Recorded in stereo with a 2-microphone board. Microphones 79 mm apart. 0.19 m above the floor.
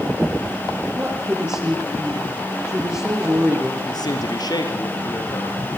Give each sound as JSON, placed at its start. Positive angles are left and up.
{"t": 0.9, "sound": "a woman speaking", "side_deg": -20, "distance_m": 7.5}
{"t": 3.9, "sound": "a man speaking", "side_deg": 60, "distance_m": 4.0}